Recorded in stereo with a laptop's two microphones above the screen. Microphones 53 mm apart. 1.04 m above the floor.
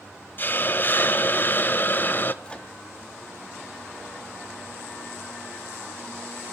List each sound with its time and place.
0.4 s a hiss: 40° left (ahead or behind), 0.7 m
2.4 s a microwave: 20° left (ahead or behind), 2 m